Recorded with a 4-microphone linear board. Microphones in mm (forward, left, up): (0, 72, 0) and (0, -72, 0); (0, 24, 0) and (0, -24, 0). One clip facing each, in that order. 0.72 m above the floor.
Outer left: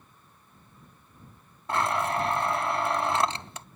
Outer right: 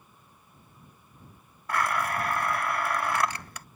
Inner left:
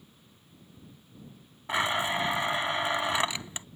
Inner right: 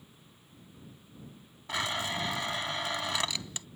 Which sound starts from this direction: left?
A blender, at 1.7 s.